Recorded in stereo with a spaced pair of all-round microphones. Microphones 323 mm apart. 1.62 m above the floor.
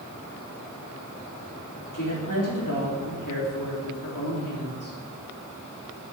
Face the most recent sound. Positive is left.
turn(degrees=75)  # may be behind; listen again after turning